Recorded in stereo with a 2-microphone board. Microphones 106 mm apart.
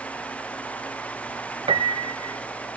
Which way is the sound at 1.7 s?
55° right (ahead or behind).